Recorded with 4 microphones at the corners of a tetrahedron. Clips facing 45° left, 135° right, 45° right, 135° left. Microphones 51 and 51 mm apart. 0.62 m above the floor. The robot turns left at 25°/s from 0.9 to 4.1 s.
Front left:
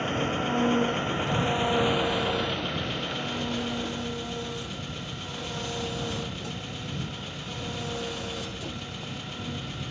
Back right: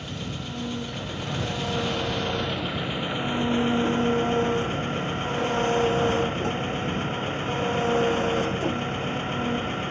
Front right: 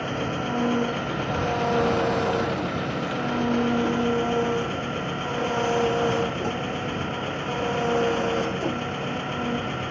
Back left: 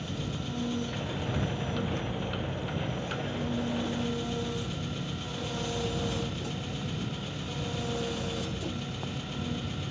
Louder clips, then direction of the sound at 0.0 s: Front left 7 dB, front right 9 dB; 5° right.